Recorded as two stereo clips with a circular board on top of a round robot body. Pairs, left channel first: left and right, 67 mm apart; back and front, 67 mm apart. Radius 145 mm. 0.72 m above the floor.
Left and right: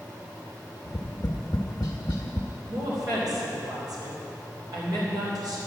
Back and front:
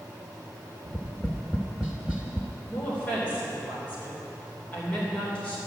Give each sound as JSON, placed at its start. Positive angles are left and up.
{"t": 0.8, "sound": "tapping", "azimuth_deg": 80, "distance_m": 0.5}
{"t": 2.7, "sound": "a woman speaking", "azimuth_deg": -110, "distance_m": 3.0}